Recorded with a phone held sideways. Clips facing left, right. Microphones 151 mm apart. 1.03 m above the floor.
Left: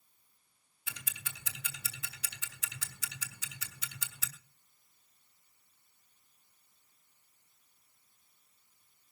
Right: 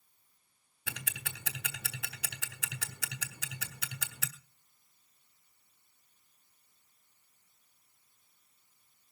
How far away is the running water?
I don't hear running water.